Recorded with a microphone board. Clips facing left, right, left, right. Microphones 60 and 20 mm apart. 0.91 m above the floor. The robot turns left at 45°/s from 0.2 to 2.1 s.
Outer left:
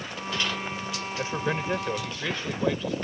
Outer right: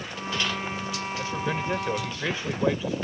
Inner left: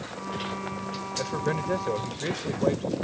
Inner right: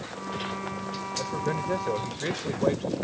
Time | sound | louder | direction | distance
1.2 | a man speaking | outer left 2 dB, inner left 1 dB | 30° left | ?